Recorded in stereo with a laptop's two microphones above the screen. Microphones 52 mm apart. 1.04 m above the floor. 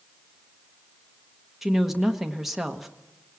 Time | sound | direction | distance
1.6 | a woman speaking | 5° right (ahead or behind) | 1.1 m